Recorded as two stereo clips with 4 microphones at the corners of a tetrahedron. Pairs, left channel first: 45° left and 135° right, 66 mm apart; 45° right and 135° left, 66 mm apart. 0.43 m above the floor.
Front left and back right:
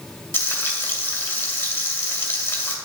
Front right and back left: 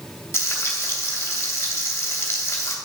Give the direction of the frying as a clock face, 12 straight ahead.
12 o'clock.